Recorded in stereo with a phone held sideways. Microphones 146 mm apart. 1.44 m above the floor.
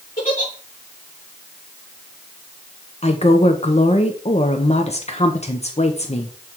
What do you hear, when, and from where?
0.2 s a giggle: 70° left (ahead or behind), 2.5 m
3.0 s a woman speaking: 50° left (ahead or behind), 0.9 m